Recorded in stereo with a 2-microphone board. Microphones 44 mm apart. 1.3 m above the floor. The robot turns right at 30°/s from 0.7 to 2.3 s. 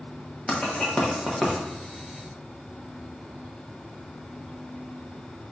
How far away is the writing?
About 1.0 m.